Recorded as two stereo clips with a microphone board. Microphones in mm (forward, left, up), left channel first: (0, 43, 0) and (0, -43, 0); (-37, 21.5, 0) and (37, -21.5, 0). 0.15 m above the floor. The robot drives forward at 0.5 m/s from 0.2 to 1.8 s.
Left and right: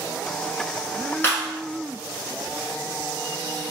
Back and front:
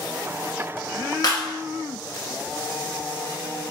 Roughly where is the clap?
Behind left.